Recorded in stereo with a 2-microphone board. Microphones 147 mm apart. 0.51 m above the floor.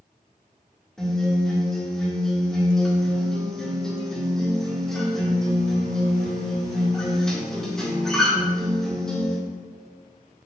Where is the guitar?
5° left (ahead or behind), 1.5 m.